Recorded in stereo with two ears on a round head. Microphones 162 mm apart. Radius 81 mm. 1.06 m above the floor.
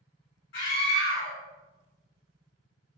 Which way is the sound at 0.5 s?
65° left (ahead or behind).